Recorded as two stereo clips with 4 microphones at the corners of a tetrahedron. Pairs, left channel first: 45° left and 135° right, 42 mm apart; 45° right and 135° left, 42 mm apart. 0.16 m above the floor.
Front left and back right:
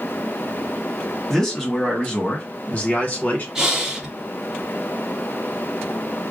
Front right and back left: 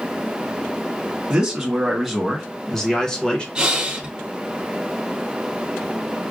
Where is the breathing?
165° left, 1.1 m.